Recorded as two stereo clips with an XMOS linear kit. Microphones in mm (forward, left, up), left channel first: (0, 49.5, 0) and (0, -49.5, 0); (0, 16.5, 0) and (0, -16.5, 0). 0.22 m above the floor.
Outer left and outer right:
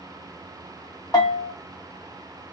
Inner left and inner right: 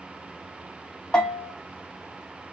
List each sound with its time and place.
1.1 s a bell: 35° left (ahead or behind), 1.4 m